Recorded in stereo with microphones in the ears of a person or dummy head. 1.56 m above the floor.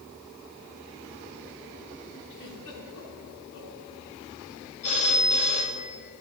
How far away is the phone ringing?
About 1.4 m.